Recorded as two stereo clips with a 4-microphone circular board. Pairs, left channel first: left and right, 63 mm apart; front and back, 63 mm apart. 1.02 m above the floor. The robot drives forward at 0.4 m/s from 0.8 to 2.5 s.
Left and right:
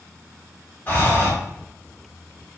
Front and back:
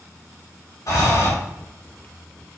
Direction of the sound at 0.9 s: 30° left.